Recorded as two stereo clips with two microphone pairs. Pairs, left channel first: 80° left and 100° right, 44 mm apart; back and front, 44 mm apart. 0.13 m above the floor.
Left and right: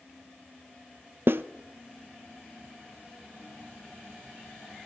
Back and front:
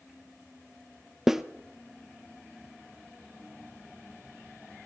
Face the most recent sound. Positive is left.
turn(degrees=-80)